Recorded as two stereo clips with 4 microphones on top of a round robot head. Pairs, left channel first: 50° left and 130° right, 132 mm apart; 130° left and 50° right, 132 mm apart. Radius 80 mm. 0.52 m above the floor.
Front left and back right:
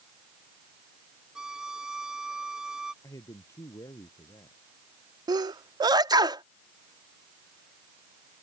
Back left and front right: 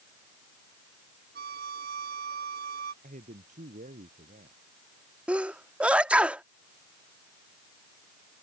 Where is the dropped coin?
I don't hear a dropped coin.